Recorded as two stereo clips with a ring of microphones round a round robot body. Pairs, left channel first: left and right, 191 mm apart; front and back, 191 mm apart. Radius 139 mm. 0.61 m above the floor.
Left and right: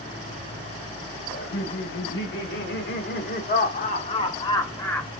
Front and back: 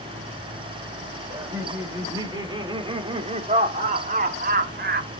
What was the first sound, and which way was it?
Laughter, 105° left.